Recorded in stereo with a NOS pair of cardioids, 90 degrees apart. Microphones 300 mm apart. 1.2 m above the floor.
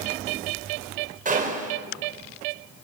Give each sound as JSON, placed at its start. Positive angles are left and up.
{"t": 1.2, "sound": "a gunshot", "azimuth_deg": -25, "distance_m": 5.0}